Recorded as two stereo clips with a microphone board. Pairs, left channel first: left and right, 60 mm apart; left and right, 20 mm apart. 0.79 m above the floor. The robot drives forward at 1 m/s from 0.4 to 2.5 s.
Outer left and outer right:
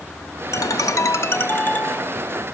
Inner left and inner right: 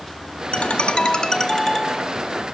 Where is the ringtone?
75° left (ahead or behind), 0.7 m; by 2.4 s 20° left (ahead or behind), 1.8 m.